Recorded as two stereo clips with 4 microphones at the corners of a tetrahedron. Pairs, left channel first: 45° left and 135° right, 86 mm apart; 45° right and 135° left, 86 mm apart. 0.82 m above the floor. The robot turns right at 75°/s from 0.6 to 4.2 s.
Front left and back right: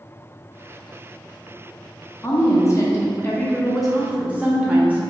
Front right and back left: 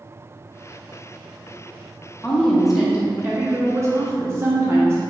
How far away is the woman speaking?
About 0.6 m.